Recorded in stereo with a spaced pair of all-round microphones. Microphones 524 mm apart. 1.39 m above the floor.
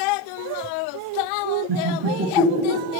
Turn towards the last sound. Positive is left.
turn(degrees=-10)  # may be behind; listen again after turning